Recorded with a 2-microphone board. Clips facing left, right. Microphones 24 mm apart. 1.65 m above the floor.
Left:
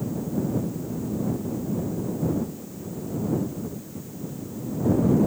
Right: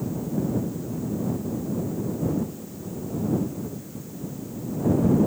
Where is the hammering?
I don't hear hammering.